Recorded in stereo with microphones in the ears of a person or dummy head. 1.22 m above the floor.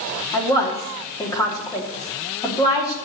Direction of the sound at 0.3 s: 20° left (ahead or behind).